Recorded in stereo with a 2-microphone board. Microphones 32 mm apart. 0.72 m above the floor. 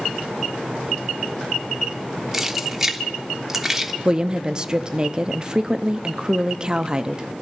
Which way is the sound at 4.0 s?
25° right (ahead or behind).